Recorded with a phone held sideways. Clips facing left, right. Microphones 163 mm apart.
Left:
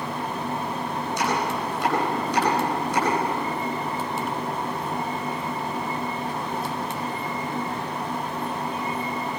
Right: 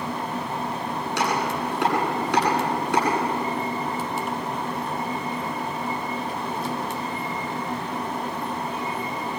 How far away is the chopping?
About 9.5 m.